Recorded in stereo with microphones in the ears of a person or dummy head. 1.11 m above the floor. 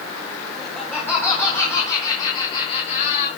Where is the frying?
No frying in this recording.